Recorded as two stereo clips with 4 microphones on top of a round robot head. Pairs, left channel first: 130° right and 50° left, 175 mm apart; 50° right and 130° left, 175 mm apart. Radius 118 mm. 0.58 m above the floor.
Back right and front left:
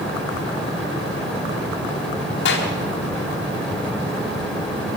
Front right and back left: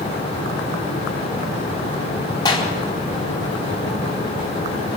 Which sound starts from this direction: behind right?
A clap, at 2.5 s.